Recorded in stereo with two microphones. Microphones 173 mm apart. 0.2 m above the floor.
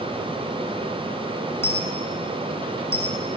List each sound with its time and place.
1.6 s a dropped coin: 15° left (ahead or behind), 6 m